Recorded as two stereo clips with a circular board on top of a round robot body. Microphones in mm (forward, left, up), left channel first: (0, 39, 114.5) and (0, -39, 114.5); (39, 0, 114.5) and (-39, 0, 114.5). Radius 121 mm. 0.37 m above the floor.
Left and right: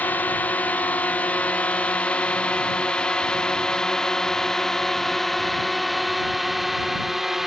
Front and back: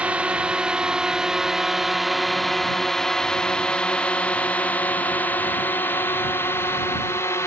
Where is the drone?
125° left; by 7.5 s 5° right.